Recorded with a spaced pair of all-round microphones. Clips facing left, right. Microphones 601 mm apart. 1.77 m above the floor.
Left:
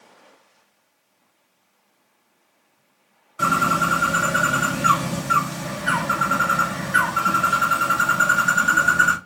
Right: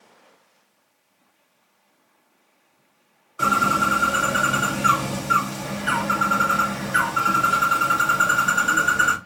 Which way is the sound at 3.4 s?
20° left (ahead or behind).